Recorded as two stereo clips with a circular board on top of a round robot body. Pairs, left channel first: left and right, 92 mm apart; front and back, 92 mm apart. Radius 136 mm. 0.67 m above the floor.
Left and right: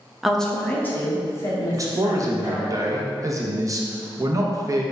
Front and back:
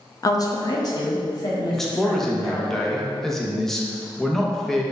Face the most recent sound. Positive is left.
turn(degrees=-85)